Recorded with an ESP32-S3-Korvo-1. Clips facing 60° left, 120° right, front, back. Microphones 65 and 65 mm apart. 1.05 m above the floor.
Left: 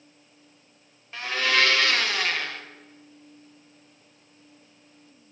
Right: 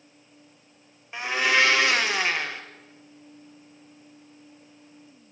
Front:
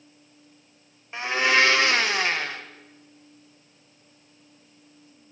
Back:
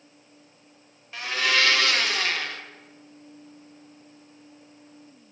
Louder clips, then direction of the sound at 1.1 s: Right 2 dB, front 3 dB; 55° right.